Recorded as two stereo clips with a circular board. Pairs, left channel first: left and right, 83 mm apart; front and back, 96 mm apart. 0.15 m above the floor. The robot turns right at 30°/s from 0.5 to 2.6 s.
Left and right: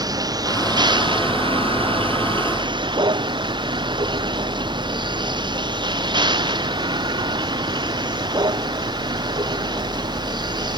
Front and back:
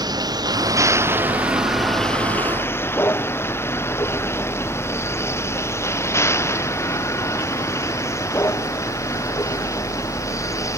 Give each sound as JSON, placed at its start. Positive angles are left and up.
{"t": 0.0, "sound": "a vehicle", "azimuth_deg": -135}